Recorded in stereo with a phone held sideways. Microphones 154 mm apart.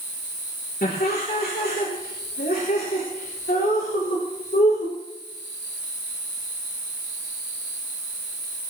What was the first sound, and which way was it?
Laughter, 75° left (ahead or behind).